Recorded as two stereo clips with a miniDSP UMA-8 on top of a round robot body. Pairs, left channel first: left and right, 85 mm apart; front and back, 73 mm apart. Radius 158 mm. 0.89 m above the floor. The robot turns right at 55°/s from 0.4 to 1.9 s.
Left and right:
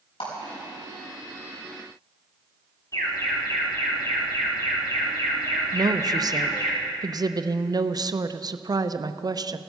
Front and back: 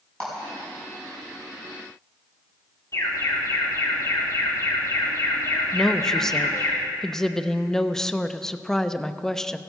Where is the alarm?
40° left, 4.5 m.